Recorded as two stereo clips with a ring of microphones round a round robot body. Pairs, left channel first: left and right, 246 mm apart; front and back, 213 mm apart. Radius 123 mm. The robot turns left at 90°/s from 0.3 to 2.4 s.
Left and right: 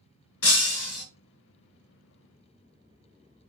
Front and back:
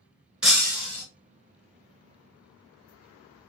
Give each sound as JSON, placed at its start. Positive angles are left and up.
{"t": 0.4, "sound": "breaking glass", "azimuth_deg": 95, "distance_m": 1.5}